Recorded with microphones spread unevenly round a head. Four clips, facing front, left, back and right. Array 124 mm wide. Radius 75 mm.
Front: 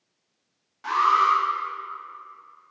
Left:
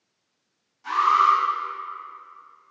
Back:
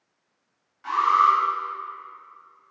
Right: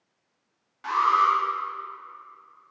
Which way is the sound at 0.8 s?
50° right.